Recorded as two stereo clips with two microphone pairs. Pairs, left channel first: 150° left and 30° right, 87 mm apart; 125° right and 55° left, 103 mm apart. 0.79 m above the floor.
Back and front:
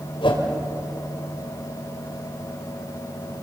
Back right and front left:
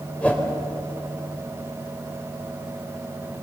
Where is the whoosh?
155° left, 3 m.